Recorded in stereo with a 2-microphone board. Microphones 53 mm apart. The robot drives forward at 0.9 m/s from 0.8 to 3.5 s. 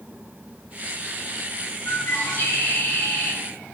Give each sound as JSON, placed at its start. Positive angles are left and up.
{"t": 1.9, "sound": "a bird", "side_deg": 45, "distance_m": 5.0}